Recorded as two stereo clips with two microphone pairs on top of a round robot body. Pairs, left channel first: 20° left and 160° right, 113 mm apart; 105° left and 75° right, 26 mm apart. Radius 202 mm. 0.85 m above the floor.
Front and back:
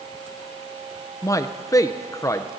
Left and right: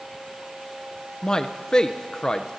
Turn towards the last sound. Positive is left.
turn(degrees=55)